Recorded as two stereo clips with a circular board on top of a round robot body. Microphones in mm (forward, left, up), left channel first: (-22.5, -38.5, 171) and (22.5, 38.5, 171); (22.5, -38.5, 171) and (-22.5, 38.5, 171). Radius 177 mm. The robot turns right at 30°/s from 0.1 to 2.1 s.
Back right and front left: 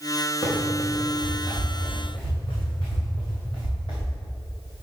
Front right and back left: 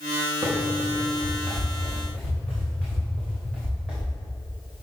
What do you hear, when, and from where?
0.4 s running footsteps: 170° left, 3 m; by 4.2 s 160° right, 6 m